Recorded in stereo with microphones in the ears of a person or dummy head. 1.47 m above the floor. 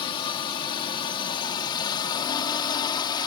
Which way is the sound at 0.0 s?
25° left (ahead or behind).